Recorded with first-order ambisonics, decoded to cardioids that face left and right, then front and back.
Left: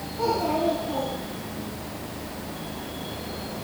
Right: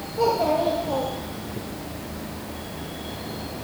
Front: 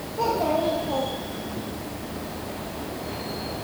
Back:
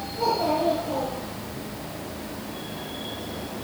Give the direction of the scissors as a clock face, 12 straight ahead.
No scissors in this recording.